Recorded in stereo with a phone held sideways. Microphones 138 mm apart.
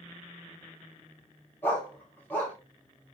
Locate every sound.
1.6 s a dog barking: 15° left (ahead or behind), 3 m